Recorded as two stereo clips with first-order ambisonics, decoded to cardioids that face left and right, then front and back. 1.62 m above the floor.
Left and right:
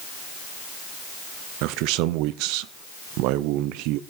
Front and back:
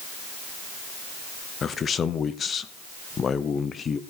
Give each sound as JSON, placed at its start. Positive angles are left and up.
{"t": 1.6, "sound": "a man speaking", "azimuth_deg": -70, "distance_m": 0.7}